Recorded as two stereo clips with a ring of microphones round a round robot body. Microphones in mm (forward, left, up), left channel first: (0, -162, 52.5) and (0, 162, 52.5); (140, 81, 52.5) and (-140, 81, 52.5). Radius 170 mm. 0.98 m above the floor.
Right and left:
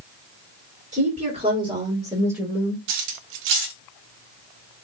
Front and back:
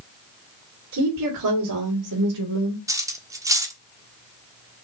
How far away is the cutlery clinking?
About 1.1 m.